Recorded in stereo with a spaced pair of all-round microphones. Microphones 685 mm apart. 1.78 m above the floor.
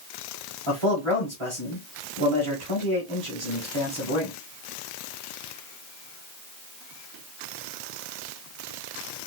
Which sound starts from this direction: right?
A man speaking, at 0.7 s.